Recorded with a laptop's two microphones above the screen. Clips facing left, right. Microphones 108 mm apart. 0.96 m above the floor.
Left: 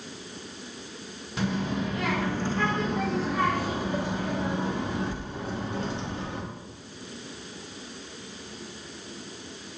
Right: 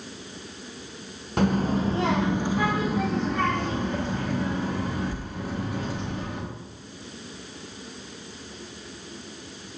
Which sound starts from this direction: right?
A child speaking, at 1.4 s.